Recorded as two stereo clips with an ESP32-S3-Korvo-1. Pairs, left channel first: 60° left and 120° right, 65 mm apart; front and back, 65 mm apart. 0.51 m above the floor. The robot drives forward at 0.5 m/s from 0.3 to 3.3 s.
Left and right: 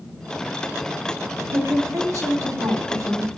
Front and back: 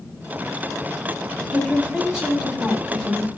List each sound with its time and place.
1.5 s a woman speaking: 100° right, 4.5 m; by 3.3 s 110° right, 4.5 m